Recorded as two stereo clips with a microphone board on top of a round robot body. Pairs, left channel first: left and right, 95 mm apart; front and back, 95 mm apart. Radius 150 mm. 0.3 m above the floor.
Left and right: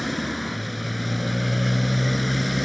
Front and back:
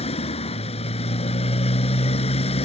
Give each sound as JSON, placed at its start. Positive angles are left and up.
{"t": 0.0, "sound": "a motorcycle", "azimuth_deg": 0}